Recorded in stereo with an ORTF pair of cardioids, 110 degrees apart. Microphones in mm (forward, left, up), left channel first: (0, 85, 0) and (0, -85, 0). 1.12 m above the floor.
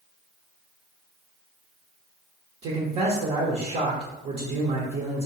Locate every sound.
2.6 s a man speaking: 60° right, 1.1 m